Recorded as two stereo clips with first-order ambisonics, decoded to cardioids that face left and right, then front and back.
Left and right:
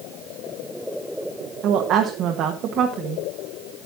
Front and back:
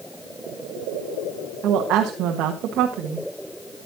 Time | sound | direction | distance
1.6 | a woman speaking | 135° right | 1.1 m